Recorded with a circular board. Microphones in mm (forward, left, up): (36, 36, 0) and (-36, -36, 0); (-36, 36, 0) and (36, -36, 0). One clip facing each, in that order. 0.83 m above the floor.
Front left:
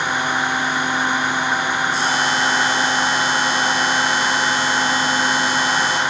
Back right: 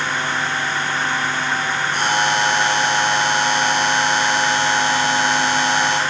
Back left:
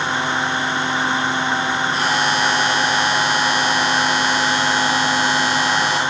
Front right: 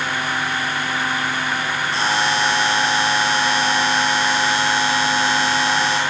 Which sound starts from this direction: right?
A buzzer, at 1.9 s.